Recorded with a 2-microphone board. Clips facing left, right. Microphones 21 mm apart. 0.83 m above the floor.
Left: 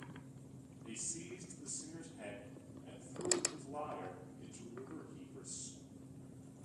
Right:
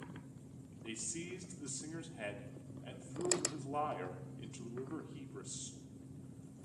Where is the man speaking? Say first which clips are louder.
Right 3 dB; 65° right (ahead or behind), 2 m.